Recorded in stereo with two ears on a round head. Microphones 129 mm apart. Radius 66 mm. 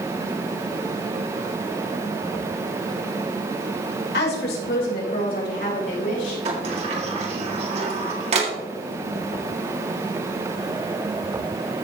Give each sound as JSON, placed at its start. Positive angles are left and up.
{"t": 4.1, "sound": "a woman speaking", "side_deg": 75, "distance_m": 3.5}
{"t": 6.5, "sound": "a sliding door", "side_deg": -45, "distance_m": 2.0}